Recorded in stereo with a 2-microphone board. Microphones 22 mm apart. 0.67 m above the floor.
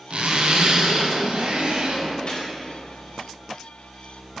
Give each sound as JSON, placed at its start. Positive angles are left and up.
{"t": 0.1, "sound": "a zipper", "side_deg": -80, "distance_m": 1.4}
{"t": 2.3, "sound": "a gunshot", "side_deg": 55, "distance_m": 2.0}